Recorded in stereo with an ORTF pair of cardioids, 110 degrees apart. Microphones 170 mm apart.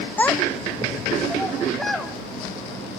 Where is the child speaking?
10° left, 0.8 m; by 2.1 s straight ahead, 3 m.